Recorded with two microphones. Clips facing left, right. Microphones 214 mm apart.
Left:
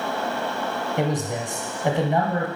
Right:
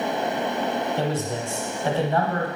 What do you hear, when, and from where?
1.0 s a man speaking: 15° left (ahead or behind), 1.1 m